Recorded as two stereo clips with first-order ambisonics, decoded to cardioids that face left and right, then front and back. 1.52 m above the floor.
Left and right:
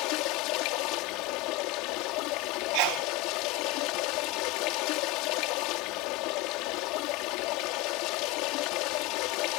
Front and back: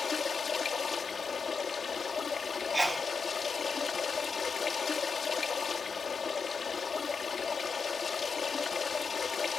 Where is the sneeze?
95° right.